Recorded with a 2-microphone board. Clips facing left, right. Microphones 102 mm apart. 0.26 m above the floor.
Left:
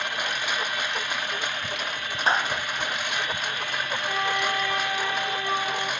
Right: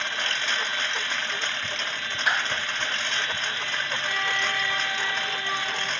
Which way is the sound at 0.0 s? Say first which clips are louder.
Left 1 dB; 10° left (ahead or behind).